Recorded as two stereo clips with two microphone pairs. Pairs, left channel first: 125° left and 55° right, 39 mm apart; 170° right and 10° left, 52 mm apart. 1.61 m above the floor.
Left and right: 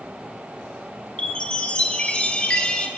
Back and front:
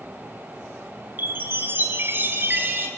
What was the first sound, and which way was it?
A chime, 60° left.